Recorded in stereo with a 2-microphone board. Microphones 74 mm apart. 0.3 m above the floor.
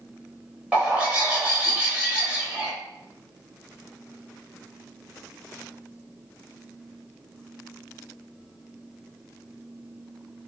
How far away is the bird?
About 0.7 m.